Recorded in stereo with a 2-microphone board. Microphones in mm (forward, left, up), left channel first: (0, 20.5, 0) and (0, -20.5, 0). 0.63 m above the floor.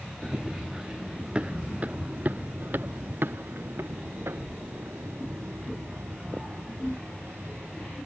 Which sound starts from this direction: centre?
Running footsteps, at 0.2 s.